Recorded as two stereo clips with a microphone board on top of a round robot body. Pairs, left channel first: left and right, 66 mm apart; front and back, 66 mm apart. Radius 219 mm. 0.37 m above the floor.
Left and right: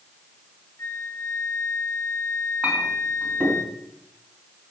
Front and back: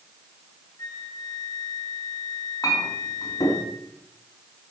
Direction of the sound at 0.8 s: 40° left.